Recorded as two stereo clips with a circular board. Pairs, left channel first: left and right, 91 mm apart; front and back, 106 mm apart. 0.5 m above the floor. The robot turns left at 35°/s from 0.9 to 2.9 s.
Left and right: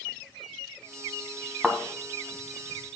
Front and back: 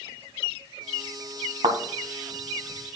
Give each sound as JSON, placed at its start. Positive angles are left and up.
{"t": 1.6, "sound": "a thud", "azimuth_deg": -175, "distance_m": 1.6}